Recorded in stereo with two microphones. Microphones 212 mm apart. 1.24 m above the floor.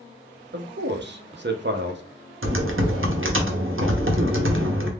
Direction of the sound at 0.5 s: 55° right (ahead or behind).